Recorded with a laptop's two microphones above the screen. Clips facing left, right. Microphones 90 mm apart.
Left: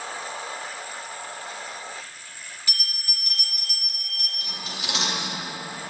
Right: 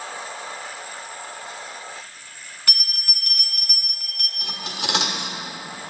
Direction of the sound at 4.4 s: 75° right (ahead or behind).